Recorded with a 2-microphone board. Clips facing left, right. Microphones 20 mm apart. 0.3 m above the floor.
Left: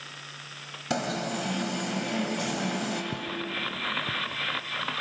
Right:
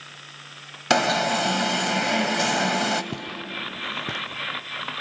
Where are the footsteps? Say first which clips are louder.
Even; 60° right (ahead or behind), 0.6 m; by 4.4 s 75° right (ahead or behind), 1.4 m.